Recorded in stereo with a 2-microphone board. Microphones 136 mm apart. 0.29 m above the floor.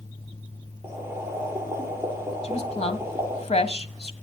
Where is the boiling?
15° right (ahead or behind), 5 m.